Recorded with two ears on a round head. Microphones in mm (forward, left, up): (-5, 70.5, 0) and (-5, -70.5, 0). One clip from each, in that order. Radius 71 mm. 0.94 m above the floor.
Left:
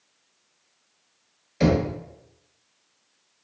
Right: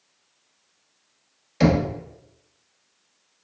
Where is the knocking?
35° right (ahead or behind), 1.3 m.